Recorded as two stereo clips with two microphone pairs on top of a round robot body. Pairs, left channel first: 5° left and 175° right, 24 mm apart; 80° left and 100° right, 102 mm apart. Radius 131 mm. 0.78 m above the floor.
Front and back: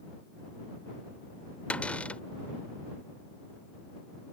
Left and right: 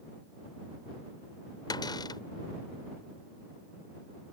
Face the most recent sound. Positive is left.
turn(degrees=30)